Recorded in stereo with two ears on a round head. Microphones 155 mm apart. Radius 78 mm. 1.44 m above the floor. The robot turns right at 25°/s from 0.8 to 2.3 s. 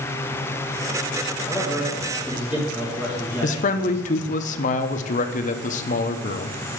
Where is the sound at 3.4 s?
45° left (ahead or behind), 0.7 m.